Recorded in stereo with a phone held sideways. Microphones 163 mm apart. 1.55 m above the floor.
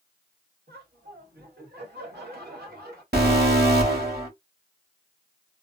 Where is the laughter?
80° right, 1.7 m.